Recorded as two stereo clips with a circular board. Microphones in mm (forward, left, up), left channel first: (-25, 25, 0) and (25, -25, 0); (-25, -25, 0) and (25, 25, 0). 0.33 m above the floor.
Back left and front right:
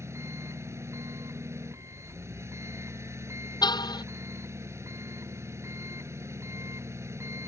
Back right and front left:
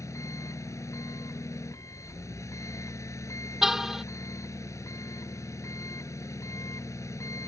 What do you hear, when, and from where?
0.0 s an engine running: 95° right
3.6 s a car horn: 130° left